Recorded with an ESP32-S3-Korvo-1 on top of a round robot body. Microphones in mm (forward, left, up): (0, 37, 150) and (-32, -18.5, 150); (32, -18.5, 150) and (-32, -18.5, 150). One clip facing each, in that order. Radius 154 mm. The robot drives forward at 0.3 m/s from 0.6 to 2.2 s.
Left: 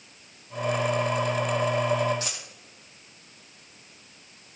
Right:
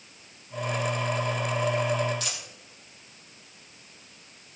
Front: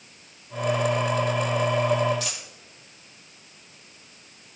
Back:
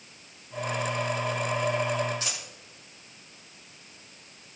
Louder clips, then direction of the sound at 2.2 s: Left 1 dB, front 2 dB; 120° left.